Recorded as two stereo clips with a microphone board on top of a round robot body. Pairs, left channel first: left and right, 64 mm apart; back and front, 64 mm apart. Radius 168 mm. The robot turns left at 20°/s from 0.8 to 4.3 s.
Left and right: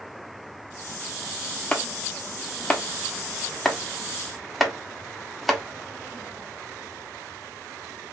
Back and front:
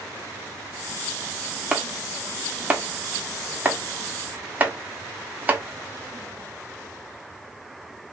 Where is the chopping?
50° left, 1.5 m; by 5.6 s straight ahead, 1.5 m.